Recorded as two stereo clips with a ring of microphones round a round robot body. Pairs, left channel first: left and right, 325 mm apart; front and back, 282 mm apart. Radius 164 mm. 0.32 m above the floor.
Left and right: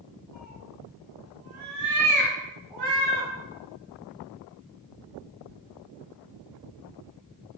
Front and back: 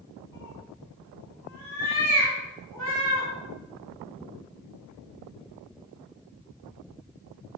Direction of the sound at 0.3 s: 10° left.